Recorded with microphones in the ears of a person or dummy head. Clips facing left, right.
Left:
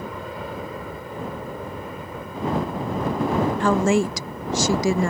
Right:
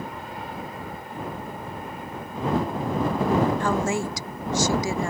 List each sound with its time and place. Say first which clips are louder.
0.0 s an aircraft: left 3 dB; 65° left (ahead or behind)
3.6 s a woman speaking: left 5 dB; 55° left (ahead or behind)